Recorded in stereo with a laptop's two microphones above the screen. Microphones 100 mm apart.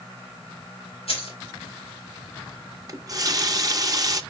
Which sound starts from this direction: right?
A running tap, at 2.9 s.